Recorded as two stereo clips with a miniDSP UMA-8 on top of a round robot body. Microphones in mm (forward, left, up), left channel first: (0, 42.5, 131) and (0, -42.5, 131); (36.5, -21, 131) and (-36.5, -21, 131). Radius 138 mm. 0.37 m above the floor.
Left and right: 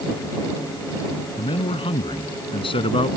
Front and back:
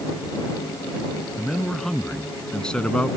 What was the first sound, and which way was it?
A man speaking, 85° left.